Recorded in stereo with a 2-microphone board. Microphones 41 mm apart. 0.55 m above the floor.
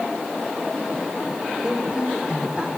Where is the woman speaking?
25° right (ahead or behind), 2 m; by 2.7 s 30° right (ahead or behind), 1.7 m.